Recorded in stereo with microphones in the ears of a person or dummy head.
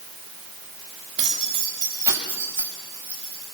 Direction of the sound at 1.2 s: 25° right (ahead or behind).